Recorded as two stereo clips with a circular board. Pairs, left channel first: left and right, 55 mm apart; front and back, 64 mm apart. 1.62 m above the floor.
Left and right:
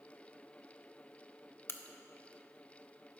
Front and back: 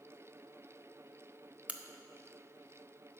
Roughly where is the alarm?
No alarm in this recording.